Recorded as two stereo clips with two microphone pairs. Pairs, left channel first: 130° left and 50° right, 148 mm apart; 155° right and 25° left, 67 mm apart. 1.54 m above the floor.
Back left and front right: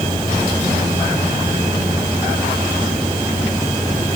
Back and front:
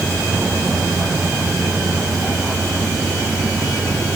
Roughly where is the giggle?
No giggle in this recording.